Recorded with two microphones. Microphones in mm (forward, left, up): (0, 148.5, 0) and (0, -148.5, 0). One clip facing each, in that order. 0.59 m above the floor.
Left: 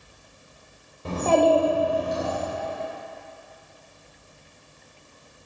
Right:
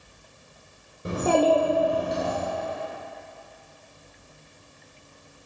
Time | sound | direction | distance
1.1 | a child speaking | 20° right (ahead or behind) | 1.1 m